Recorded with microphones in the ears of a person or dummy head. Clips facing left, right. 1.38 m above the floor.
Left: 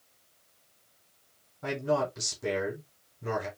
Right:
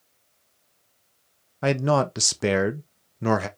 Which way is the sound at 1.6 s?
85° right.